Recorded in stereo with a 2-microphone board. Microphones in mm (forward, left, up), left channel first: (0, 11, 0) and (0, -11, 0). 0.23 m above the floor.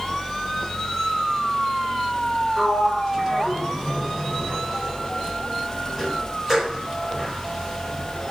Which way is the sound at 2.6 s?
25° right (ahead or behind).